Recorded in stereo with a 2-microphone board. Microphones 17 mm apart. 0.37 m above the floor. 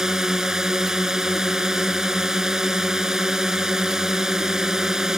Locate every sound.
0.0 s a drone: 30° right (ahead or behind)